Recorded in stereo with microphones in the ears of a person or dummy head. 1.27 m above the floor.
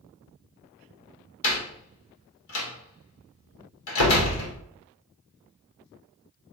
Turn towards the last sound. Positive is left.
turn(degrees=80)